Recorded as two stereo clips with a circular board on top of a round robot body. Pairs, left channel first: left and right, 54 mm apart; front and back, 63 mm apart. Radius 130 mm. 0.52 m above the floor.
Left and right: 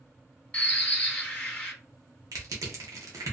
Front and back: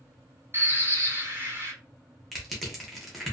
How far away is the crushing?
About 0.8 m.